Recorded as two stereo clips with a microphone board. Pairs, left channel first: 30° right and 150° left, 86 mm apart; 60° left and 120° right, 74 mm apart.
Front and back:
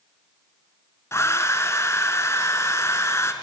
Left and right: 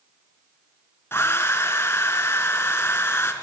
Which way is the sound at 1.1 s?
15° left.